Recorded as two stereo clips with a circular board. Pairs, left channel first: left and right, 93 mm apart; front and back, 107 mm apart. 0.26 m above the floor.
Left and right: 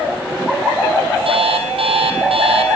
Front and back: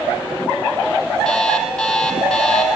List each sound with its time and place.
1.2 s an alarm clock: 85° right, 5.5 m